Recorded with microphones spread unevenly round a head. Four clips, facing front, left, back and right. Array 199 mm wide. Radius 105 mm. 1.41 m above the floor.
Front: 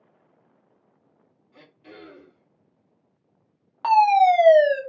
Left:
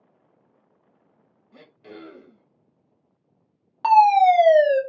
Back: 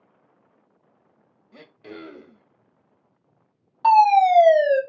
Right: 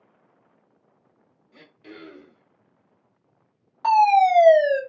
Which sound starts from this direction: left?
A fire alarm, at 3.8 s.